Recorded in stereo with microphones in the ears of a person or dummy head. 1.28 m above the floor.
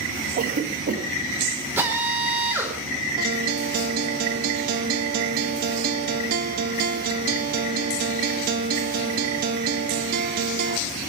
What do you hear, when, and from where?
0.4 s a cough: 50° right (ahead or behind), 1.9 m
1.8 s a drill: 10° right (ahead or behind), 4 m
3.2 s a guitar: 50° right (ahead or behind), 1.3 m